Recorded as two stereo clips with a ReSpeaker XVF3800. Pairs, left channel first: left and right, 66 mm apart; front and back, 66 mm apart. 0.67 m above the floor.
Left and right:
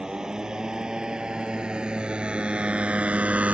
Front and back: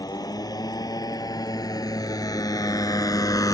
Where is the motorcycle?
10° right; by 3.5 s 20° right.